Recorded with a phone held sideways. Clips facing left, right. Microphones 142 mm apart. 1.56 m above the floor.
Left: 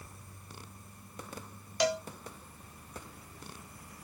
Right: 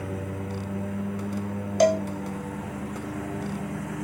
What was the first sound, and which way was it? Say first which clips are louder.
A lawn mower: right 22 dB; 80° right.